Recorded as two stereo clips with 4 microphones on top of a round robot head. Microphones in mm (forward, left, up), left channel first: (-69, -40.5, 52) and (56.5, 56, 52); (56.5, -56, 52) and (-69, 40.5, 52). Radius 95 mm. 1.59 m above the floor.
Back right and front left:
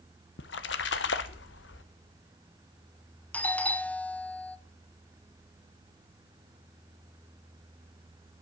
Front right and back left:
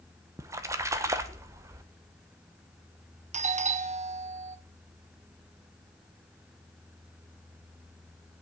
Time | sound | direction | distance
0.4 | a splash | 145° right | 0.9 m
3.3 | a doorbell | 140° left | 0.8 m